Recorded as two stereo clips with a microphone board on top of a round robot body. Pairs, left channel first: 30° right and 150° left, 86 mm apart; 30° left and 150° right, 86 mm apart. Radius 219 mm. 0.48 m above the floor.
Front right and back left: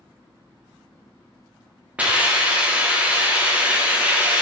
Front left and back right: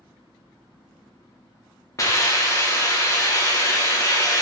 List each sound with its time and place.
2.0 s a hiss: 75° left, 1.3 m